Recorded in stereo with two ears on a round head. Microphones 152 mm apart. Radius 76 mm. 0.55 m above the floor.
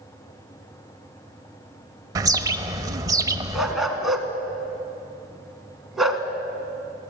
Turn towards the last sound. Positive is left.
turn(degrees=0)  # may be behind; listen again after turning